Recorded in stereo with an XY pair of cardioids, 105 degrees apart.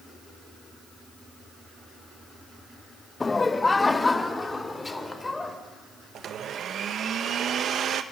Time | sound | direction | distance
3.2 | laughter | 25° left | 0.7 m
6.2 | a blender | 60° right | 1.3 m